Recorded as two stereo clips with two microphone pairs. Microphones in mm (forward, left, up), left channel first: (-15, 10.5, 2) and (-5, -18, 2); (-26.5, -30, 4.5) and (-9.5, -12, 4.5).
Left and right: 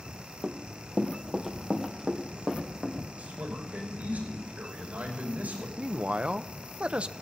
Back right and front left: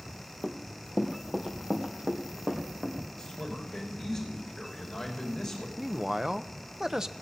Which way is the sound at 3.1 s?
55° right.